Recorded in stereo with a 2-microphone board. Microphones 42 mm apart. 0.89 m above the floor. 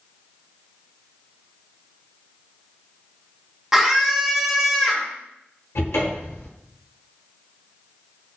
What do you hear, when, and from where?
3.7 s a scream: 10° right (ahead or behind), 1.0 m
5.8 s a cupboard door: 75° left (ahead or behind), 1.1 m